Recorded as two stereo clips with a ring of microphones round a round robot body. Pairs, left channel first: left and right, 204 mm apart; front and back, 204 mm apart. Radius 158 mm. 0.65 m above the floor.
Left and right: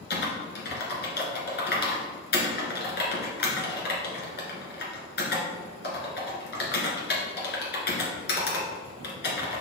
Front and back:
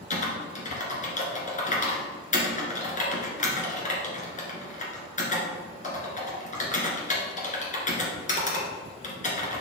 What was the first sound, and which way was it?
Typing on a keyboard, 50° left.